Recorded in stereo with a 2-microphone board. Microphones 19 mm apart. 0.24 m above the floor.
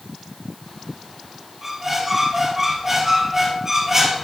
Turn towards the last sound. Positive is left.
turn(degrees=-25)  # may be behind; listen again after turning